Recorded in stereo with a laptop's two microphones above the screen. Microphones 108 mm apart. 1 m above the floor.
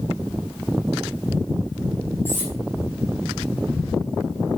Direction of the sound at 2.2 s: 20° left (ahead or behind).